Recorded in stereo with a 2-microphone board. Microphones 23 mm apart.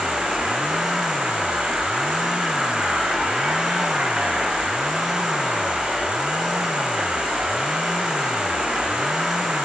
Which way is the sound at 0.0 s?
45° right (ahead or behind).